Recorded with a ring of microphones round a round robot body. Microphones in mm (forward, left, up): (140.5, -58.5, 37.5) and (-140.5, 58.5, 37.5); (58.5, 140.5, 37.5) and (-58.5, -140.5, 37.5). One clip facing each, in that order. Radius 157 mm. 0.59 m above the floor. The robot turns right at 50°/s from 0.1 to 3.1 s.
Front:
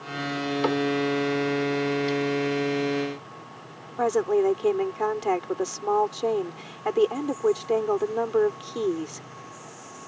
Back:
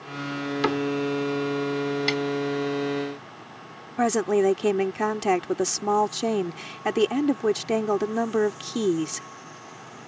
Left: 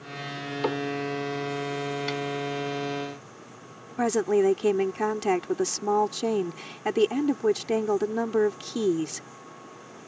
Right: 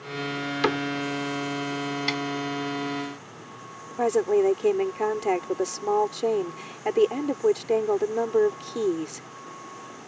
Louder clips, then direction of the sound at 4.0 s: Even, right 1 dB; 120° left.